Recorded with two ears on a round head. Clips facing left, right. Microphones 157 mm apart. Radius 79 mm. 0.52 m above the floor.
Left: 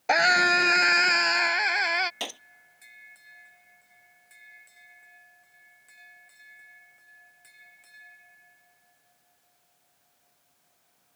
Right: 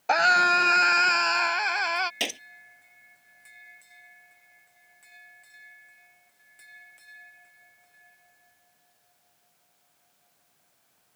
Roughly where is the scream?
Centre.